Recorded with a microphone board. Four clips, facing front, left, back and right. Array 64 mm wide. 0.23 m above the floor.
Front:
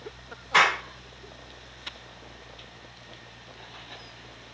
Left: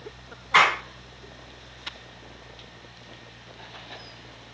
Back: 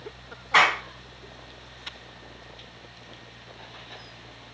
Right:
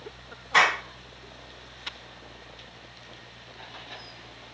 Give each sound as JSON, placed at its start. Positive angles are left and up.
{"t": 0.5, "sound": "a clap", "azimuth_deg": 130, "distance_m": 1.9}